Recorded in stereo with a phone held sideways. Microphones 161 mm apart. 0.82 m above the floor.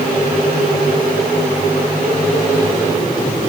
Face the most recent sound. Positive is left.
No sound to turn to.